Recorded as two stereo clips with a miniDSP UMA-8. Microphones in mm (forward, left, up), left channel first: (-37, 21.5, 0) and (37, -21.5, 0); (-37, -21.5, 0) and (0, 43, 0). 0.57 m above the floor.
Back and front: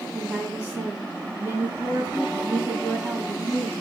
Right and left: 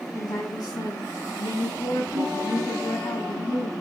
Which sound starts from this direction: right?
A woman speaking, at 0.1 s.